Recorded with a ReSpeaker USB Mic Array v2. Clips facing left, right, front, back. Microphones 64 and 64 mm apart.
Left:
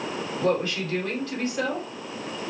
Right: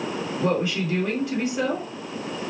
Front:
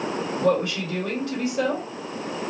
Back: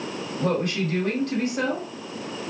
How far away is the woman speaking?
About 1.8 m.